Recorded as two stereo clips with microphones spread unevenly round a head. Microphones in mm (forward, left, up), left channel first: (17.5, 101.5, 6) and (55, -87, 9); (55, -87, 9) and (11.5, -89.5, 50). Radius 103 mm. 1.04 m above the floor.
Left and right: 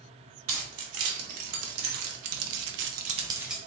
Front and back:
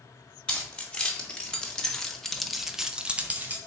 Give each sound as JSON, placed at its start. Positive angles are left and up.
{"t": 0.5, "sound": "keys jangling", "azimuth_deg": -70, "distance_m": 1.5}